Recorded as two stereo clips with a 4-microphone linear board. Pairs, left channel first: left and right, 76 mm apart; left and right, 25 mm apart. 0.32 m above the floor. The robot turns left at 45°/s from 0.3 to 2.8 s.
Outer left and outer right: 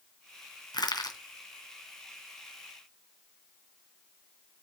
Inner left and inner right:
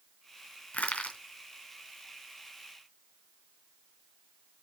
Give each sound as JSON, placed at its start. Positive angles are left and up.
{"t": 0.7, "sound": "crushing", "side_deg": 70, "distance_m": 2.5}